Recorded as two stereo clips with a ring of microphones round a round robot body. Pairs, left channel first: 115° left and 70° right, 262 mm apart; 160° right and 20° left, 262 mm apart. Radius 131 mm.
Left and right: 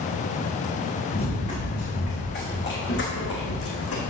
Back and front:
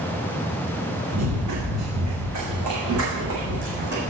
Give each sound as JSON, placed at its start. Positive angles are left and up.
{"t": 1.1, "sound": "running footsteps", "azimuth_deg": 50, "distance_m": 4.5}